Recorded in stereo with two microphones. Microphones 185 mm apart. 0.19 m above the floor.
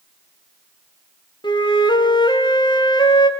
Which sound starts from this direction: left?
A flute, at 1.4 s.